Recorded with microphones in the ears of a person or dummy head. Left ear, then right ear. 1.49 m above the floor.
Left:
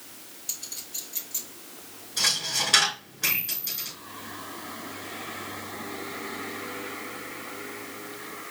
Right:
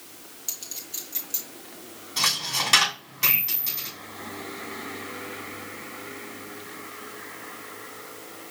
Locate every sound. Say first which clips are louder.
0.5 s a clink: even; 80° right, 3.5 m
2.2 s a dropped coin: right 1 dB; 55° right (ahead or behind), 3 m